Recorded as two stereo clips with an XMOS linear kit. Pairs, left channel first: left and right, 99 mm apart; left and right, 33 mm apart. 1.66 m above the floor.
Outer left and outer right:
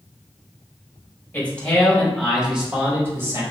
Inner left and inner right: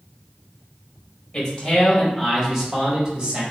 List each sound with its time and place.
1.3 s a man speaking: 20° left (ahead or behind), 1.6 m; by 3.4 s 30° right (ahead or behind), 1.4 m